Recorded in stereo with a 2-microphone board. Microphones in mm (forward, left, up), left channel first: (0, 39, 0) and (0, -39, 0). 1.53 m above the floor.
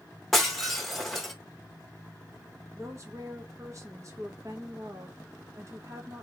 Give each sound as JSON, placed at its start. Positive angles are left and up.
{"t": 0.3, "sound": "breaking glass", "side_deg": 5, "distance_m": 1.0}
{"t": 2.8, "sound": "a woman speaking", "side_deg": -45, "distance_m": 1.2}